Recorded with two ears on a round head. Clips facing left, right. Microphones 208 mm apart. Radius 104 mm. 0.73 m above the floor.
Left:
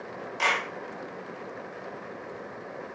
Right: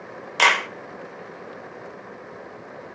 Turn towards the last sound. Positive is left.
turn(degrees=-85)